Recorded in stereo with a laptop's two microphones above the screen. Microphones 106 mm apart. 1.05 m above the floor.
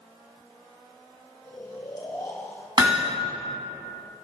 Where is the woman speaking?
No woman speaking in this recording.